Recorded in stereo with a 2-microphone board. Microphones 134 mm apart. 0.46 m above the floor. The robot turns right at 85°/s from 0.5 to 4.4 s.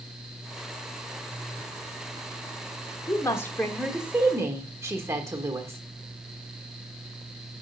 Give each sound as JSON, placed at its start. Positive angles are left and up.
{"t": 3.1, "sound": "a woman speaking", "azimuth_deg": 115, "distance_m": 1.0}